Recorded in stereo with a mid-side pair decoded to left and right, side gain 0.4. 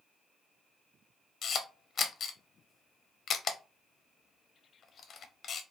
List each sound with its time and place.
1.4 s a camera shutter: 55° left, 0.6 m